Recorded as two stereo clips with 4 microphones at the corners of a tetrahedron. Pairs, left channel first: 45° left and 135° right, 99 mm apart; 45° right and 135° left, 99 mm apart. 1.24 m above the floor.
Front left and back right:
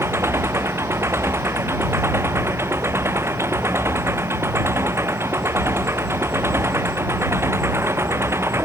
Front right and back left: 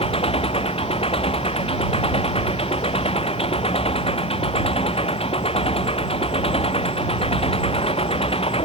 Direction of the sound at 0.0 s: 70° right.